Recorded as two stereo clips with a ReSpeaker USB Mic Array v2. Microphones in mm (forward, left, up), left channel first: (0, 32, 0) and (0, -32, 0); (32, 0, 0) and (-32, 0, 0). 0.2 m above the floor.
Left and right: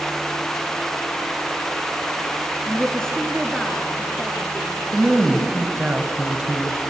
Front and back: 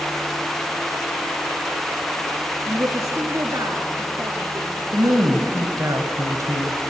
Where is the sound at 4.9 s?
165° right, 2.5 m.